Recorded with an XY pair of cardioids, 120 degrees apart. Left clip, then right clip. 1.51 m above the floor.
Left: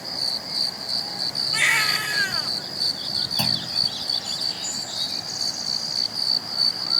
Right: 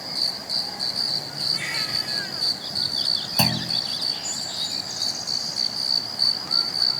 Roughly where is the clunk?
Ahead right.